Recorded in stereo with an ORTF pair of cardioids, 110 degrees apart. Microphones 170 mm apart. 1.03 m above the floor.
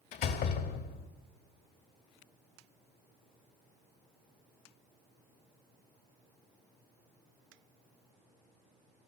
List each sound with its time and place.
0.1 s a door slam: 65° left, 1.9 m